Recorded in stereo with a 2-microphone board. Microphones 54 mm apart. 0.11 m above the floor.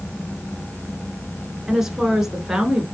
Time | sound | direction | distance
1.7 | a woman speaking | 5° right (ahead or behind) | 1.1 m